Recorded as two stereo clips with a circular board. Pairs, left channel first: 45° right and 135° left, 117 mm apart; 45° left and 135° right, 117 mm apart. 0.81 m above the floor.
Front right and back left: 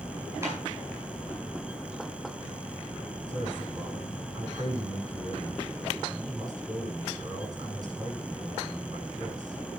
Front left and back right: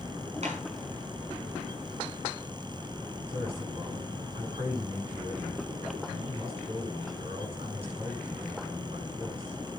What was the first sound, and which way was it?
A clap, 160° right.